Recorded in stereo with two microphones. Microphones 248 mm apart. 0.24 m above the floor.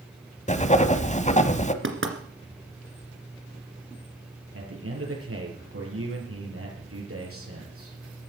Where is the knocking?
55° right (ahead or behind), 2 m.